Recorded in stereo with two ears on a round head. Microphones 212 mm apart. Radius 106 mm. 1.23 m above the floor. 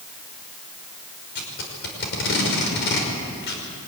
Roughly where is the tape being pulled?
Left.